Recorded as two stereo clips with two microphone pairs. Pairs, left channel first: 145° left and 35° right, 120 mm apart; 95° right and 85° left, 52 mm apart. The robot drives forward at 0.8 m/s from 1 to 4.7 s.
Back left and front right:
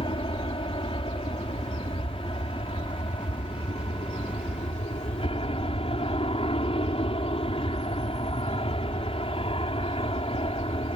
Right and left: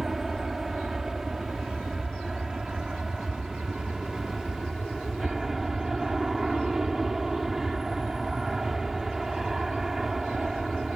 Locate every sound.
0.0 s an aircraft: 165° left; by 11.0 s 170° left